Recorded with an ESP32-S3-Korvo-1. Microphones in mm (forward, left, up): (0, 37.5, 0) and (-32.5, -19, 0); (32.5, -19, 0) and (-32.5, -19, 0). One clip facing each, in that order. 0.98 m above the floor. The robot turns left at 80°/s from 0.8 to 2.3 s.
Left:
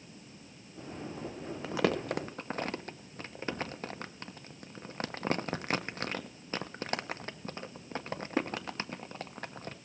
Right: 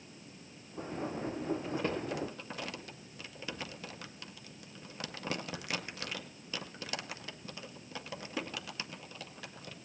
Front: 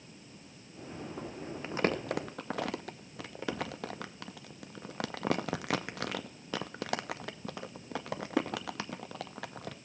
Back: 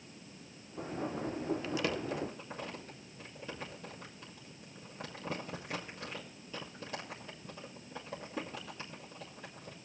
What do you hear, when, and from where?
1.6 s crumpling: 65° left, 0.6 m; by 9.8 s 10° left, 0.6 m